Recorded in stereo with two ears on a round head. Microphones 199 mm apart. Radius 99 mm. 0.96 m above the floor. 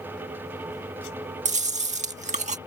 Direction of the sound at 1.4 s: 35° right (ahead or behind).